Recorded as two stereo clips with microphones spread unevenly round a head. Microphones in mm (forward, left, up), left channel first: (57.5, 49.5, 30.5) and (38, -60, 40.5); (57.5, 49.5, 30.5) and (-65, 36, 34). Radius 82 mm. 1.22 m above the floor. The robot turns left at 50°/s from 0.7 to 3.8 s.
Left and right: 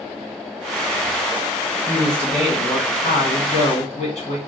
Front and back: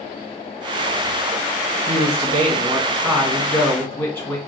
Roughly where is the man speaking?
Behind.